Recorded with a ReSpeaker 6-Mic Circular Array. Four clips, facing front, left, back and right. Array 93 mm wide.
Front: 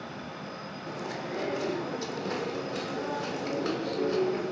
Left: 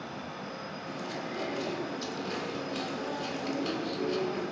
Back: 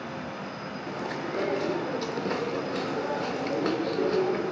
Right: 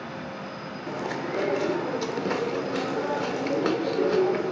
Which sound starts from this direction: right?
Chewing, at 0.9 s.